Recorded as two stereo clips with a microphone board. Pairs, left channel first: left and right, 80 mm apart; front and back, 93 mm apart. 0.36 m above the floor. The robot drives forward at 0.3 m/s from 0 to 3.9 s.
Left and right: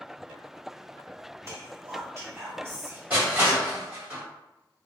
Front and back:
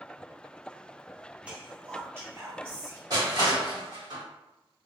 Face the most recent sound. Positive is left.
turn(degrees=-160)